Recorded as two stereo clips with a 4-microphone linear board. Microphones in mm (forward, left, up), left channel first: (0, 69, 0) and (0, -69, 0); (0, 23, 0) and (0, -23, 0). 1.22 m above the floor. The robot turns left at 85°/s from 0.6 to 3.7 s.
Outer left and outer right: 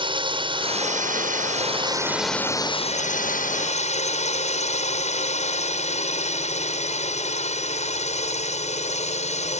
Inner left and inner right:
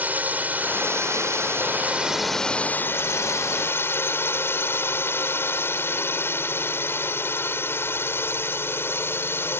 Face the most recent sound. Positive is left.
turn(degrees=60)